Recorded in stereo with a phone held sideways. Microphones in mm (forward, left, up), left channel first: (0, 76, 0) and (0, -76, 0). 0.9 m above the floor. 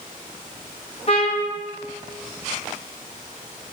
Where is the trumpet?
45° left (ahead or behind), 3 m.